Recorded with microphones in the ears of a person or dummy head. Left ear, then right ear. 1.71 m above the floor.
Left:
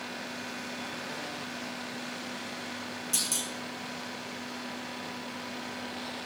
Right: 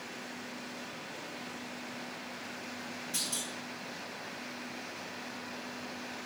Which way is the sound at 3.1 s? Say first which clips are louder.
Left 4 dB; 85° left.